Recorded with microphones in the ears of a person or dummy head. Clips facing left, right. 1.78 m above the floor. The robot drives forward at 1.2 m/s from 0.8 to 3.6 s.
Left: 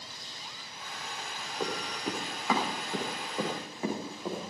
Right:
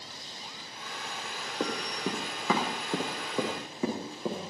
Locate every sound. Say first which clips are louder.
1.6 s running footsteps: right 2 dB; 75° right (ahead or behind), 6 m; by 4.5 s 80° right, 9.5 m